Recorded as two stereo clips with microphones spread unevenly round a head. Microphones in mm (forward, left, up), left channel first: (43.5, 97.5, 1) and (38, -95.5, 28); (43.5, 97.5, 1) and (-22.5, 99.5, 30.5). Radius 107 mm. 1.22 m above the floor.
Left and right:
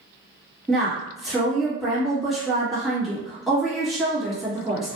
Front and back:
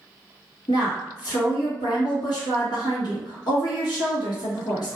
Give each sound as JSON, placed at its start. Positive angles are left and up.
{"t": 0.7, "sound": "a woman speaking", "azimuth_deg": 0, "distance_m": 1.5}